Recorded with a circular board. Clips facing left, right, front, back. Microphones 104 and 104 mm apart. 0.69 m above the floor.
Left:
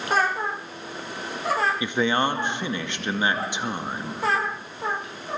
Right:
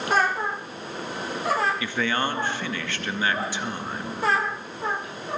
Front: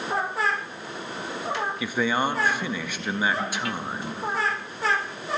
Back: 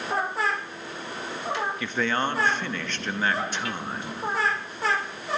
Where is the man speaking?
60° left, 0.6 m.